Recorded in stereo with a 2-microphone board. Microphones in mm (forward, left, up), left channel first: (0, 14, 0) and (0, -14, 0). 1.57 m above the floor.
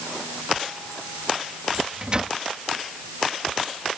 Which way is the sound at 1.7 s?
30° right (ahead or behind).